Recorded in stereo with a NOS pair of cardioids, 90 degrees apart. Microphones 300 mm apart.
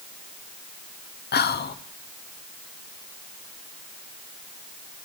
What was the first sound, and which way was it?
Whispering, 30° left.